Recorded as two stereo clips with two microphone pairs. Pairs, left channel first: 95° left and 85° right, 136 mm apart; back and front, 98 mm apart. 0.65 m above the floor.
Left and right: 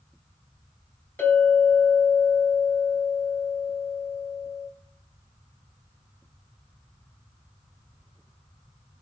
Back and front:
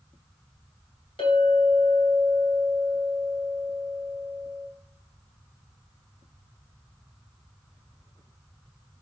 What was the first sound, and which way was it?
A clink, 165° left.